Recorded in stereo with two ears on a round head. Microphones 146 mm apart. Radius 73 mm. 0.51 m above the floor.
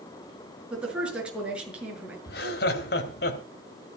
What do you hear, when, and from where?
0.7 s a woman speaking: 5° right (ahead or behind), 6.5 m
2.3 s laughter: 65° left (ahead or behind), 3 m